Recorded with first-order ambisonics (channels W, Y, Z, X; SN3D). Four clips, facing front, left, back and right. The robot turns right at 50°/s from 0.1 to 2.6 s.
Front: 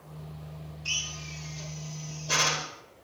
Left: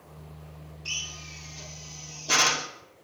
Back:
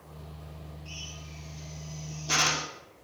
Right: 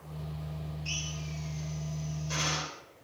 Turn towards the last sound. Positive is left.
turn(degrees=120)